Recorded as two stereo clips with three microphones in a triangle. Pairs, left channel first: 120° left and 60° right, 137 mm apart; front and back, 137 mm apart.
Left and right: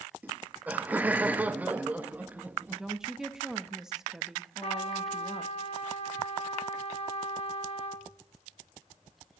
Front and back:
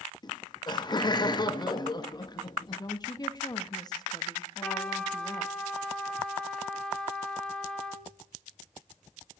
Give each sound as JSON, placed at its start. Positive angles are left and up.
{"t": 0.2, "sound": "laughter", "azimuth_deg": 10, "distance_m": 0.5}
{"t": 2.8, "sound": "a woman speaking", "azimuth_deg": 25, "distance_m": 0.7}
{"t": 4.6, "sound": "a trumpet", "azimuth_deg": 85, "distance_m": 0.9}